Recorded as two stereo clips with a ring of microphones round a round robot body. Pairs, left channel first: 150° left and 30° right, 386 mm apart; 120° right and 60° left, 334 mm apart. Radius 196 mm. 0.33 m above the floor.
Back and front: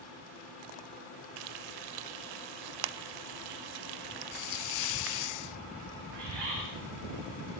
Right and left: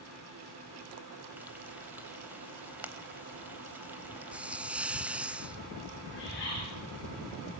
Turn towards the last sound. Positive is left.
turn(degrees=-55)